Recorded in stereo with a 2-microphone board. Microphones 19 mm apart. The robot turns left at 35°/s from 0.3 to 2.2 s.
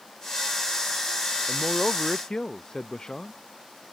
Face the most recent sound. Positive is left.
turn(degrees=40)  # may be behind; listen again after turning